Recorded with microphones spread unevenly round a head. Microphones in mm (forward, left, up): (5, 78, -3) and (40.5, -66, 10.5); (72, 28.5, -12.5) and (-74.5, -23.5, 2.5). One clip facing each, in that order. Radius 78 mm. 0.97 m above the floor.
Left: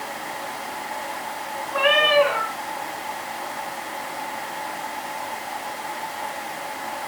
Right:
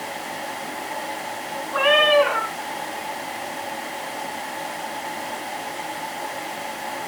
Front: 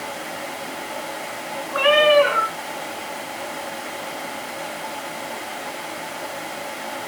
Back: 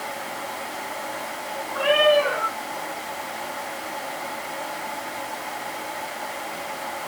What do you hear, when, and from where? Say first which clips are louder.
1.7 s a cat meowing: right 2 dB, front 3 dB; 20° left, 5 m